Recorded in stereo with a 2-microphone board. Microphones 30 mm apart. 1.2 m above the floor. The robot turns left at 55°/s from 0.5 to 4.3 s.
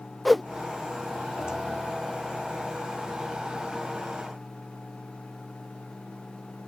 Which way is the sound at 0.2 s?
5° left (ahead or behind).